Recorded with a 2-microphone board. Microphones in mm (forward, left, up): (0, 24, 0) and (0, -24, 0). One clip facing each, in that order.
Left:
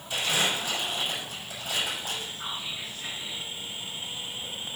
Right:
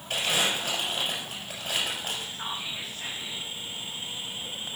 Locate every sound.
0.1 s crumpling: 55° right (ahead or behind), 6.5 m
2.3 s whispering: 85° right, 5 m